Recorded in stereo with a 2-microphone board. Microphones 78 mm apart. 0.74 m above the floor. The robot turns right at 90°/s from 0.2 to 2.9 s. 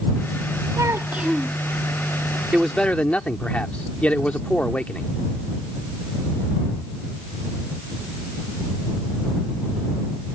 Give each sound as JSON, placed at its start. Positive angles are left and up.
{"t": 0.8, "sound": "a child speaking", "azimuth_deg": -55}
{"t": 2.5, "sound": "a man speaking", "azimuth_deg": -15}